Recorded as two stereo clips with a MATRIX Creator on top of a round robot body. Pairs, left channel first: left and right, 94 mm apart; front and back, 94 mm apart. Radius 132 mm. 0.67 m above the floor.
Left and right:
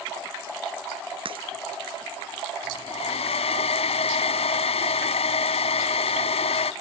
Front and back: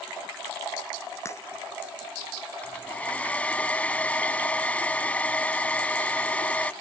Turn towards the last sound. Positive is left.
turn(degrees=75)